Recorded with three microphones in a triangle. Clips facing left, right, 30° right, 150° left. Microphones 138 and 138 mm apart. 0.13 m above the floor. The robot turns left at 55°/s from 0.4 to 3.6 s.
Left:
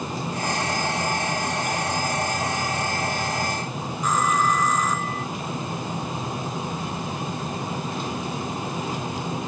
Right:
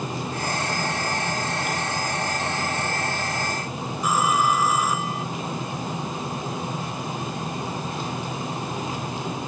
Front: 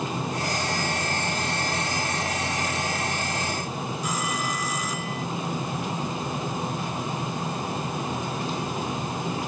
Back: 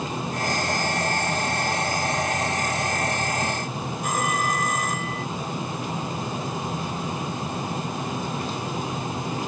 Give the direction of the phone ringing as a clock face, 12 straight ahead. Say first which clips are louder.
Right 1 dB, back 6 dB; 6 o'clock.